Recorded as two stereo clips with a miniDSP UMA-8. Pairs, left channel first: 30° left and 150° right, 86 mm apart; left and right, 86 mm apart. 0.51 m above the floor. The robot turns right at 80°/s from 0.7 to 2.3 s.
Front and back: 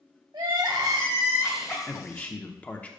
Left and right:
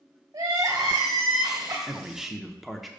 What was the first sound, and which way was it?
Crying, 120° right.